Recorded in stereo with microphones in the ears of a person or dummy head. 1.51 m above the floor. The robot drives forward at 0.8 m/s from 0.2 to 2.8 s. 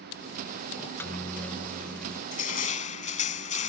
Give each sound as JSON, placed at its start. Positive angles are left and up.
{"t": 0.8, "sound": "a microwave", "side_deg": 15}
{"t": 2.3, "sound": "crushing", "side_deg": 45}